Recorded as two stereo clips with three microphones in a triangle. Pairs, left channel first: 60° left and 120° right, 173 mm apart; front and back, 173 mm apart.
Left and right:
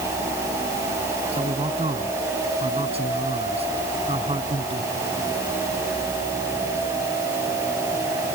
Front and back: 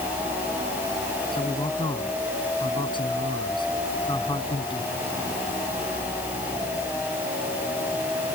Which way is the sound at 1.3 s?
65° right.